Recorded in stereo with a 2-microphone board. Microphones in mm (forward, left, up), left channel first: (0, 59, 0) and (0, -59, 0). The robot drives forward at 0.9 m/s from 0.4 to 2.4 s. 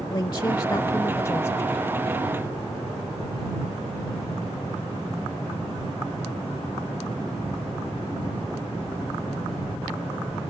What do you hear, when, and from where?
0.1 s a woman speaking: 40° left (ahead or behind); by 1.8 s 20° left (ahead or behind)